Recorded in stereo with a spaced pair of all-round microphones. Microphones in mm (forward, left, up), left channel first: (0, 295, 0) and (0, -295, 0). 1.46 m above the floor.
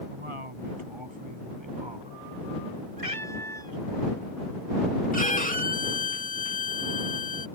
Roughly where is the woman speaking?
Right.